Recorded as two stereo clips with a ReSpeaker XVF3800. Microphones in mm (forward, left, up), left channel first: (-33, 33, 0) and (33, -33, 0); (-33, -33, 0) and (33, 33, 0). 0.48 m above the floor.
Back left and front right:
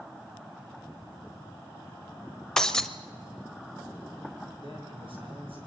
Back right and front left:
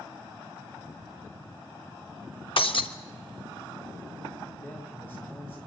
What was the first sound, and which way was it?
Breaking glass, 145° right.